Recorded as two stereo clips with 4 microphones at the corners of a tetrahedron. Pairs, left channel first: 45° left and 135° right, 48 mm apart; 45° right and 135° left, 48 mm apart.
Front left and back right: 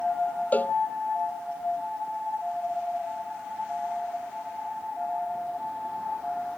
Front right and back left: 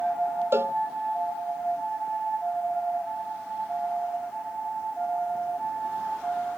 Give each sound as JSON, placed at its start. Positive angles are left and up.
{"t": 0.5, "sound": "a cowbell", "azimuth_deg": 100}